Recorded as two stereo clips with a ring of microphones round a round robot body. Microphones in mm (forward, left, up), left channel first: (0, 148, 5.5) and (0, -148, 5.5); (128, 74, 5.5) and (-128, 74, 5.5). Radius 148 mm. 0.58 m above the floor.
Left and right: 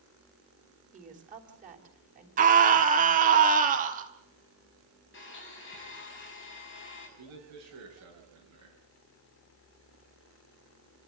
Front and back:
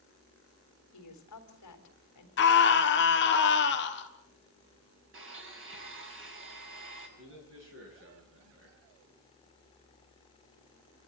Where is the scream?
35° right, 1.7 m.